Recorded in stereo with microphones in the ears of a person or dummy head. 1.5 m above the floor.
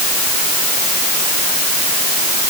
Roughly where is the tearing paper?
No tearing paper in this recording.